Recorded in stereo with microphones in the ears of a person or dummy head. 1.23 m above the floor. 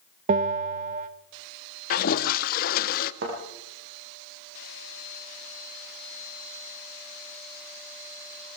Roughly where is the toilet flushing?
Left.